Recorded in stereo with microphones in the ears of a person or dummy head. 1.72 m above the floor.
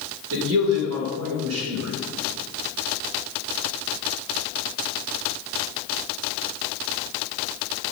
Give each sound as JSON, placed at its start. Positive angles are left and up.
{"t": 0.3, "sound": "a man speaking", "side_deg": -80, "distance_m": 2.0}